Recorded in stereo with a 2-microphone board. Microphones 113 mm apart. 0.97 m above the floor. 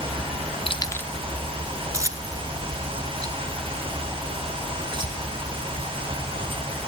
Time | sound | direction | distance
0.7 | keys jangling | 55° left (ahead or behind) | 0.7 m